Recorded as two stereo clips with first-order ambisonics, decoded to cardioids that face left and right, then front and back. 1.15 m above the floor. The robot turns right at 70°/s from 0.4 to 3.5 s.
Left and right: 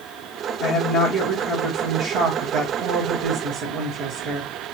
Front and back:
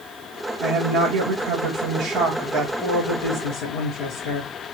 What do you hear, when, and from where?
0.6 s a woman speaking: 120° left, 1.3 m; by 4.5 s 40° right, 1.3 m